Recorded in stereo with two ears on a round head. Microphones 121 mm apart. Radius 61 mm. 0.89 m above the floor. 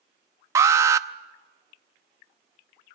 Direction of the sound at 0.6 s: 20° right (ahead or behind).